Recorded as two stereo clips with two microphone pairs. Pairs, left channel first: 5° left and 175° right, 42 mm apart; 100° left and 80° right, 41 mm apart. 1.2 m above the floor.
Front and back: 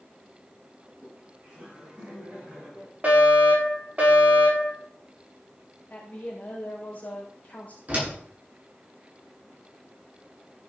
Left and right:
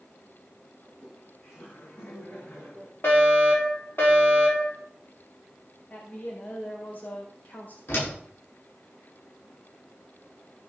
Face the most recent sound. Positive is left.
turn(degrees=125)